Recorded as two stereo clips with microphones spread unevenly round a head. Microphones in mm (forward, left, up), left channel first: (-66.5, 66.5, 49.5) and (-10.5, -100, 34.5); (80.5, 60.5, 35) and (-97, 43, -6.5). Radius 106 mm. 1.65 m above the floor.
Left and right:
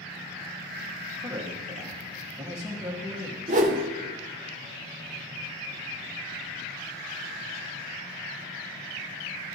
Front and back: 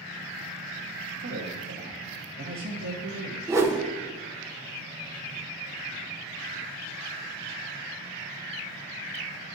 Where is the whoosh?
85° right, 0.6 m.